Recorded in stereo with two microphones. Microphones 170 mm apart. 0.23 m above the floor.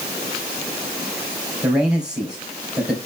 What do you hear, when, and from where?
1.6 s a man speaking: 5° right (ahead or behind), 4.5 m